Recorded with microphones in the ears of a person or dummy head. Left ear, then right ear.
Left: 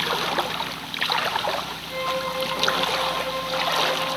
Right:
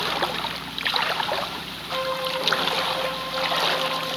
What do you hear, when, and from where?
1.9 s a violin: 65° left (ahead or behind), 3.5 m